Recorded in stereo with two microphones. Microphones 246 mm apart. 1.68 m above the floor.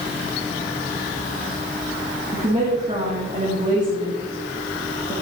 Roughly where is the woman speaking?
Right.